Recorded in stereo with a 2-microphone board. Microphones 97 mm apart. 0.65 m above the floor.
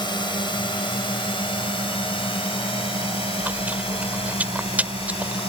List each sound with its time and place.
0.0 s a drone: 50° left (ahead or behind); by 5.5 s 75° left (ahead or behind)
3.4 s chewing: 15° right (ahead or behind)